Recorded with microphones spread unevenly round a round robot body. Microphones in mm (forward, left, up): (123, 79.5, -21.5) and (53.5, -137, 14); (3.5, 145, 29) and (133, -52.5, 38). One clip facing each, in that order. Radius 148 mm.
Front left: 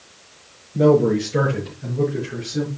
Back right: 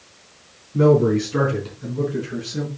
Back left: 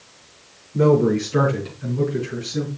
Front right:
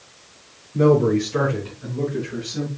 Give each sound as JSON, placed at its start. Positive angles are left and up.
{"t": 0.7, "sound": "a man speaking", "azimuth_deg": -155, "distance_m": 4.5}